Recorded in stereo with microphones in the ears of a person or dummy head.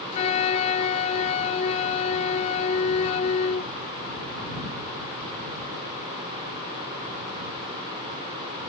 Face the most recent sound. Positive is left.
turn(degrees=45)  # may be behind; listen again after turning